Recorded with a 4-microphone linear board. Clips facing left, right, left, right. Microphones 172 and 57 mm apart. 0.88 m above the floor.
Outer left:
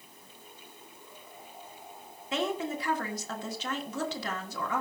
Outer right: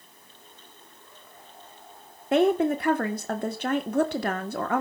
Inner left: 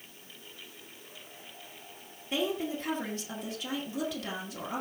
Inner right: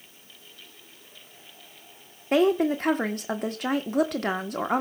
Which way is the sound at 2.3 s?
60° right (ahead or behind).